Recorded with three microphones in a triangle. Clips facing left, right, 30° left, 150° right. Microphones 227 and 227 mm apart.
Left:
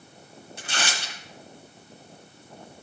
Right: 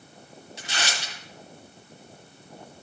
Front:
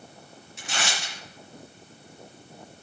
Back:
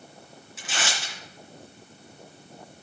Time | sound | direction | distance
0.6 | tearing paper | 125° left | 3 m